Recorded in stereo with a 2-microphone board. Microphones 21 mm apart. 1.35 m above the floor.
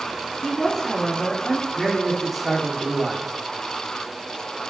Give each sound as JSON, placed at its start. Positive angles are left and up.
{"t": 0.4, "sound": "a woman speaking", "side_deg": 35, "distance_m": 5.0}
{"t": 1.8, "sound": "a man speaking", "side_deg": 5, "distance_m": 3.0}